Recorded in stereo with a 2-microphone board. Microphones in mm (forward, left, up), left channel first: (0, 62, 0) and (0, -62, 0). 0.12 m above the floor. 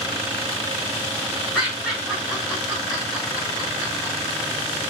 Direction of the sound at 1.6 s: 5° left (ahead or behind).